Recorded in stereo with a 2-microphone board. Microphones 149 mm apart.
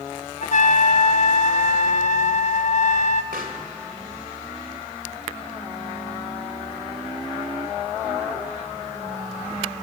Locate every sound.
0.4 s a trumpet: 60° left (ahead or behind), 0.6 m
3.3 s a pop: 80° right, 1.9 m